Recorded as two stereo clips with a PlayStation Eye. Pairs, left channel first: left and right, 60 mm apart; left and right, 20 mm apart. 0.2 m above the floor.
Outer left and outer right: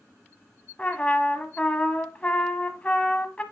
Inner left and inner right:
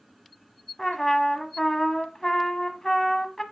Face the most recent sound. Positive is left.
turn(degrees=25)  # may be behind; listen again after turning